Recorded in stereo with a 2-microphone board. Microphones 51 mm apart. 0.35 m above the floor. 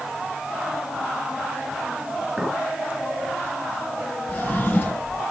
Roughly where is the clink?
Centre.